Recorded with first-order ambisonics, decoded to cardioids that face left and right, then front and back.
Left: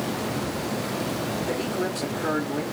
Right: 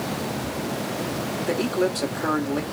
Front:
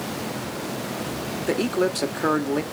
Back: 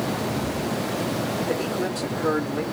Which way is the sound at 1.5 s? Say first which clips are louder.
Right 7 dB, front 3 dB; 20° right.